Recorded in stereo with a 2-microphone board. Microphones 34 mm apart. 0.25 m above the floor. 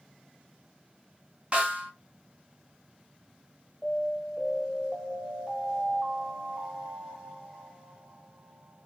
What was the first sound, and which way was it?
A snare drum, 40° right (ahead or behind).